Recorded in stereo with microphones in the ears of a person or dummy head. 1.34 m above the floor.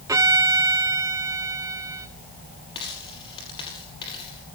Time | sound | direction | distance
0.1 | a violin | 15° right (ahead or behind) | 0.6 m
2.8 | a dropped coin | 25° left (ahead or behind) | 5.5 m